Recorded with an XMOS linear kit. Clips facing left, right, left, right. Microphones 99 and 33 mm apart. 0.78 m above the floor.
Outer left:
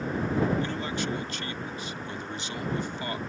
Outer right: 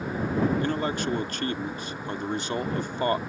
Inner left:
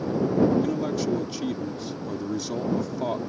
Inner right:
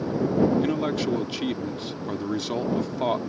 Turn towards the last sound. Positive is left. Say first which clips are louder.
# outer right 4 dB, inner right 1 dB
turn(degrees=-50)  # may be behind; listen again after turning